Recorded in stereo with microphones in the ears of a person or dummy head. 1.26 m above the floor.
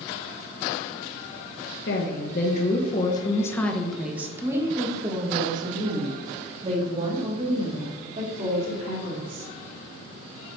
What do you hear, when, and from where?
1.9 s a woman speaking: 65° left (ahead or behind), 1.1 m; by 9.4 s 45° right (ahead or behind), 4 m